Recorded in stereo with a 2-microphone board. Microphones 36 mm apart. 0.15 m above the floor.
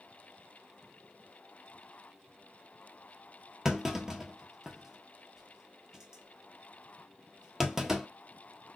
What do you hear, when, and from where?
3.6 s a clunk: 15° right (ahead or behind), 0.6 m